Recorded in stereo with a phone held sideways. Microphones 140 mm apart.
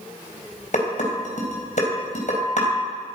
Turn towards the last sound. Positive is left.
turn(degrees=60)  # may be behind; listen again after turning